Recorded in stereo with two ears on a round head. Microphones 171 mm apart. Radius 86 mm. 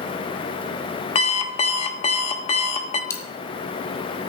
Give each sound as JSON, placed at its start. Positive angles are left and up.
{"t": 1.1, "sound": "an alarm clock", "side_deg": 30, "distance_m": 1.1}
{"t": 3.1, "sound": "a dropped coin", "side_deg": 15, "distance_m": 1.4}